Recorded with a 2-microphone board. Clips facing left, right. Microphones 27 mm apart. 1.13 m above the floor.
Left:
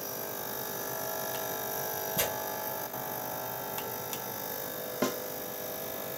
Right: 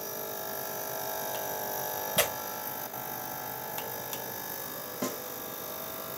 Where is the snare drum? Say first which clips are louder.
Left 4 dB; 20° left (ahead or behind), 0.8 m.